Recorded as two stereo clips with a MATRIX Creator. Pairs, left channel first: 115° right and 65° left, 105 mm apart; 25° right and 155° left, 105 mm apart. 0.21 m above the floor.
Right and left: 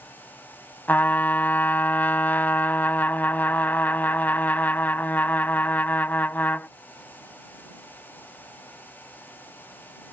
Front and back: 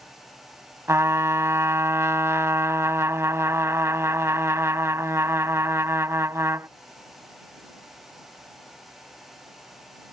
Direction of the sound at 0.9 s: 165° right.